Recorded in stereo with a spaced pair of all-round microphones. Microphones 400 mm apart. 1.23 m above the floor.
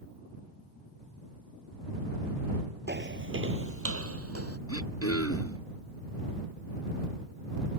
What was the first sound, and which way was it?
Footsteps, 25° right (ahead or behind).